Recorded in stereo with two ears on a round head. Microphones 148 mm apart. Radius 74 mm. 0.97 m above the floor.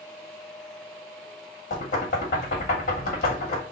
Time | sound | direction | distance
1.7 | knocking | 55° left (ahead or behind) | 1.4 m